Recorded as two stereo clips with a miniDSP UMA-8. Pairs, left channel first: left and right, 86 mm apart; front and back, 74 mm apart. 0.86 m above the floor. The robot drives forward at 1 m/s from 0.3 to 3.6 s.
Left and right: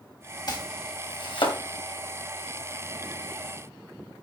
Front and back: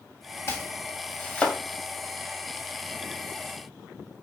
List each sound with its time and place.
0.5 s chopping: 55° left, 3 m; by 1.6 s 75° left, 2.5 m